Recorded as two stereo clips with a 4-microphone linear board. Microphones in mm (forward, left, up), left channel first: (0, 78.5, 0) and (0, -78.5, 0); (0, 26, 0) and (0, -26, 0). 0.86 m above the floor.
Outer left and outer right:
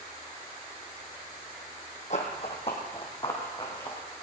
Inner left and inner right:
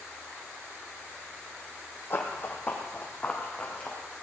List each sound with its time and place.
2.1 s running footsteps: 50° left (ahead or behind), 1.8 m; by 4.2 s 25° left (ahead or behind), 3.5 m